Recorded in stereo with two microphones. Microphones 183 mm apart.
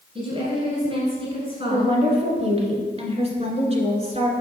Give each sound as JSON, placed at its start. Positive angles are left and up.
{"t": 0.1, "sound": "a woman speaking", "side_deg": -35, "distance_m": 1.6}
{"t": 1.7, "sound": "a woman speaking", "side_deg": -35, "distance_m": 1.8}